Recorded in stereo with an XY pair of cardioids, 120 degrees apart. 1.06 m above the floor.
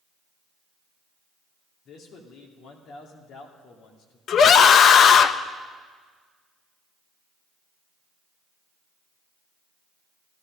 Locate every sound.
1.9 s a man speaking: 65° left, 2 m
4.3 s a scream: 50° left, 0.7 m